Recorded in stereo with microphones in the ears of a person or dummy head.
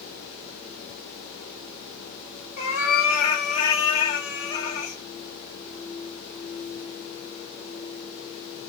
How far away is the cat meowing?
About 1.3 m.